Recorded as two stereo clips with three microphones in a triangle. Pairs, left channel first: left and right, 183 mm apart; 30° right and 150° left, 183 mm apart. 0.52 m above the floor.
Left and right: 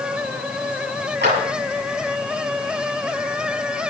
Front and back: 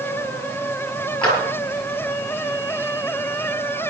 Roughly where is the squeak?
I don't hear a squeak.